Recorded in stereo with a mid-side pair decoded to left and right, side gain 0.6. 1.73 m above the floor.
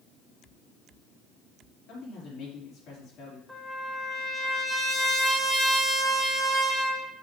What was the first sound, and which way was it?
A man speaking, 65° left.